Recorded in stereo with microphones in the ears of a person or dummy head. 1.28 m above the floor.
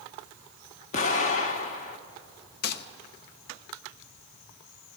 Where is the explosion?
45° left (ahead or behind), 0.9 m.